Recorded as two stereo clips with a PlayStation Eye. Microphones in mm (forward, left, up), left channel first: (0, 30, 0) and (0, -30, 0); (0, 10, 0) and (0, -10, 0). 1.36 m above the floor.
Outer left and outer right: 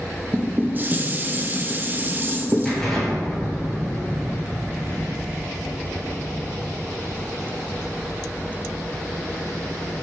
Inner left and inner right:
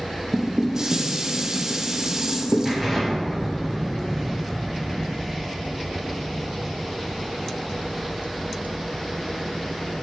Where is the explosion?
10° left (ahead or behind), 4 m.